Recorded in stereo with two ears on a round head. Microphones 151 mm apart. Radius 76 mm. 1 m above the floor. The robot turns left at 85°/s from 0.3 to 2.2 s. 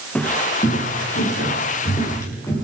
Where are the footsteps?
10° left (ahead or behind), 4 m; by 2.5 s 20° left (ahead or behind), 7.5 m.